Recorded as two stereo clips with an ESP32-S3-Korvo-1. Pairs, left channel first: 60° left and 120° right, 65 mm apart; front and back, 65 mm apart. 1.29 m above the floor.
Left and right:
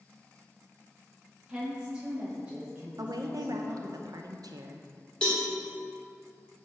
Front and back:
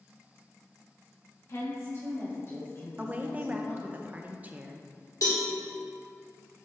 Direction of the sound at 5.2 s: 15° right.